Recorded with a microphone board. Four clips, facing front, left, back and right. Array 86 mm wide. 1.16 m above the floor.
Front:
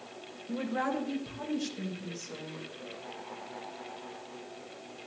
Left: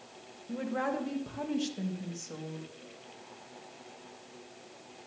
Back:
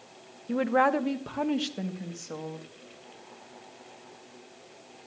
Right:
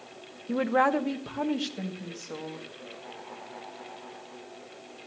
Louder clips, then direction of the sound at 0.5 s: Right 9 dB, back 8 dB; 120° right.